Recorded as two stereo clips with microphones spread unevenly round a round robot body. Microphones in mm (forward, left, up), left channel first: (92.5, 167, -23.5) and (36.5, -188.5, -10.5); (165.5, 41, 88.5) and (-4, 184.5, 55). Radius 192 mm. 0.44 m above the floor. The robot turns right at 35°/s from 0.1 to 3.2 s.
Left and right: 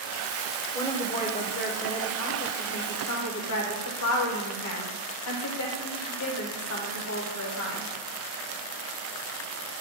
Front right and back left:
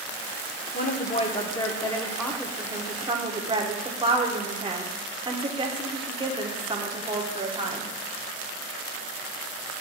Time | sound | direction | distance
0.7 | a woman speaking | 5° left | 1.1 m